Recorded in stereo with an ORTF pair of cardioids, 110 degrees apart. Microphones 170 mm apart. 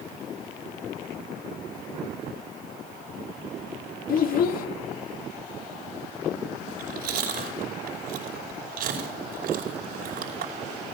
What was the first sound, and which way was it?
A child speaking, 60° left.